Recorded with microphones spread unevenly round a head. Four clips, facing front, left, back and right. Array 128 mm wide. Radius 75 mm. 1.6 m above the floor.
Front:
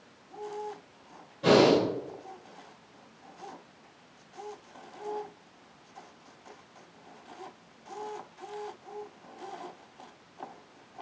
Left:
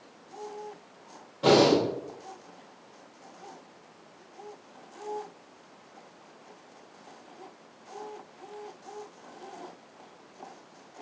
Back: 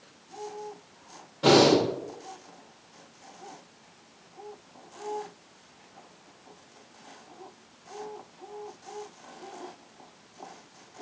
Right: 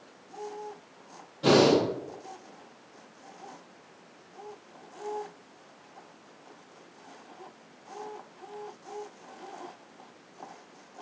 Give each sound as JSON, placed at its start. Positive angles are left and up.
{"t": 1.4, "sound": "breathing", "azimuth_deg": 115, "distance_m": 1.4}